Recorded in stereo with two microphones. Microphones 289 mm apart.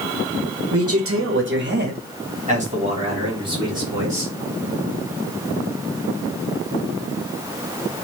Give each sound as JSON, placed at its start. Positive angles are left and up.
{"t": 0.7, "sound": "a man speaking", "side_deg": -55, "distance_m": 0.9}